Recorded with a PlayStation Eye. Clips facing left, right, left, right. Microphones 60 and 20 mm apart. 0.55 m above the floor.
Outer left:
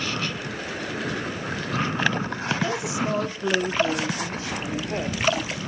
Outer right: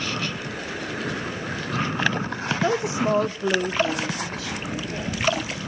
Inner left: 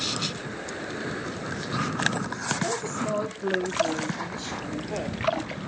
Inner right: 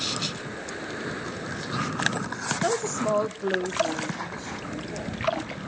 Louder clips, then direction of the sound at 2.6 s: Outer right 4 dB, inner right 3 dB; 45° right (ahead or behind).